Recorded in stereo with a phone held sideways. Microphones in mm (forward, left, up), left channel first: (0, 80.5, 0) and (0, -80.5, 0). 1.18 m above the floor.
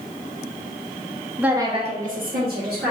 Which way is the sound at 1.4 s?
5° right (ahead or behind).